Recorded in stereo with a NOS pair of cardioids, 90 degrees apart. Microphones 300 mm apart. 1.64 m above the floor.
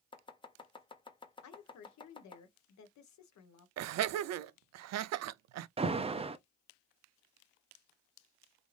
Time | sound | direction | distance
0.1 | chopping | 15° left | 0.7 m
1.4 | a woman speaking | 65° left | 1.2 m
3.8 | laughter | 65° right | 0.5 m
5.8 | an alarm | 20° right | 0.6 m